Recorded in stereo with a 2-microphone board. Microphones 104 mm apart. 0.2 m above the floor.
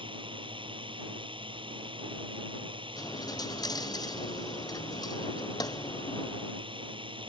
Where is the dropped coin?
40° left (ahead or behind).